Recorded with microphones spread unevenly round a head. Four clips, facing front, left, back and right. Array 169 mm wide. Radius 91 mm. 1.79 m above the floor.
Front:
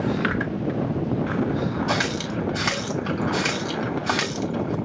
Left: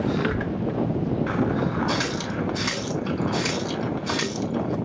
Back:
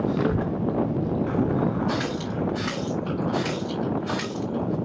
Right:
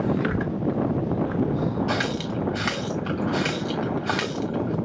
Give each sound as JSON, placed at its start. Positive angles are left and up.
{"t": 0.2, "sound": "a child speaking", "azimuth_deg": 175, "distance_m": 0.6}
{"t": 1.9, "sound": "a running tap", "azimuth_deg": -30, "distance_m": 3.0}